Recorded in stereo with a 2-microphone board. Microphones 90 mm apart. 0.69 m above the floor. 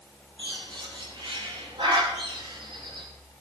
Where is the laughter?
I don't hear laughter.